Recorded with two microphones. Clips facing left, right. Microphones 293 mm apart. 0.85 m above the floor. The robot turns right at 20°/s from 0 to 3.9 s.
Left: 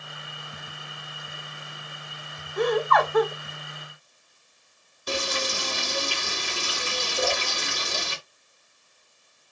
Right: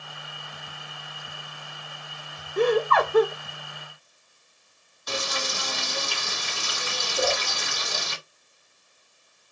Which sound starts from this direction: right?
Laughter, at 2.6 s.